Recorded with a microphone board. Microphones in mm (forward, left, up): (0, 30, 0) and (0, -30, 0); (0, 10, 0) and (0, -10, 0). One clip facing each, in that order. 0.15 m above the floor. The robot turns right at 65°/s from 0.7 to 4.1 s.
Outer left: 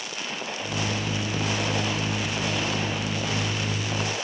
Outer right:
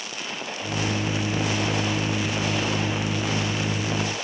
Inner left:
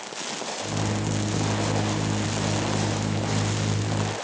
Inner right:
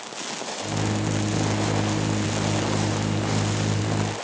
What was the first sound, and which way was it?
Only background noise.